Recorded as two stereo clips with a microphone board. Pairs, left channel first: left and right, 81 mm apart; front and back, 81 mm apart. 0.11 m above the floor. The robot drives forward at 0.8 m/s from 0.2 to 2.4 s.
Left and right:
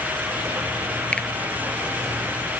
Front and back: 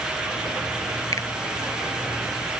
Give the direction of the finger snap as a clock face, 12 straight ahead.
11 o'clock.